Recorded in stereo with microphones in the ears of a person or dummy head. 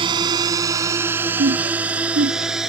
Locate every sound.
0.0 s a drone: 25° right (ahead or behind); by 2.7 s centre (ahead or behind)
1.4 s laughter: 45° right (ahead or behind)